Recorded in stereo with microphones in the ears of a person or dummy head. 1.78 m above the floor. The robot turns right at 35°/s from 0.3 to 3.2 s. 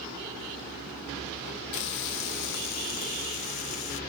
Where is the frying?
80° left, 1.1 m; by 4.0 s 135° left, 1.1 m.